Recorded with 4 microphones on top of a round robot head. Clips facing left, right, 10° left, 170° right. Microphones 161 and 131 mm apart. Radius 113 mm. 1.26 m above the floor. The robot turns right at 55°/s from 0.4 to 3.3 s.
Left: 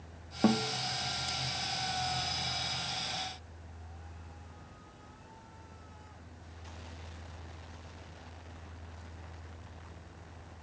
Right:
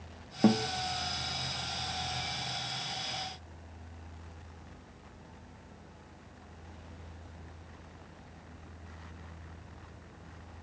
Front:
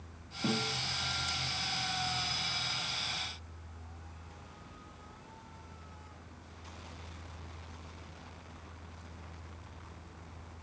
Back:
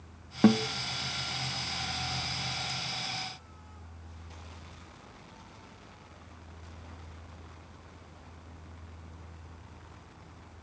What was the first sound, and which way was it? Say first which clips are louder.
A guitar: right 2 dB, back 11 dB; 170° right.